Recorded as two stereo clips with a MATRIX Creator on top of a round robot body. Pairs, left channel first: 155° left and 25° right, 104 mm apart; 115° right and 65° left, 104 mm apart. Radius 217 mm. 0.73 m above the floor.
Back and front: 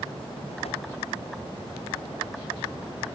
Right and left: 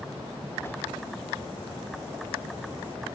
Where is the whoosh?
Straight behind.